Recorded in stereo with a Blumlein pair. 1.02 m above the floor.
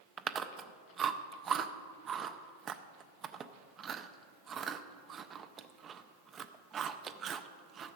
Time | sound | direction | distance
0.2 | chewing | 20° right | 0.6 m